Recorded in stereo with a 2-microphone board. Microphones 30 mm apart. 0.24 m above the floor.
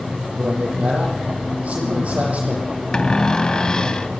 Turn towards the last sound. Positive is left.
turn(degrees=30)  # may be behind; listen again after turning